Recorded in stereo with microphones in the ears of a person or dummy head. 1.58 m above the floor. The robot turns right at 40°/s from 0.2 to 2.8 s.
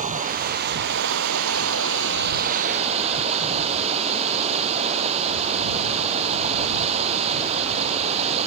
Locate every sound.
0.0 s running water: 135° right; by 8.5 s 35° right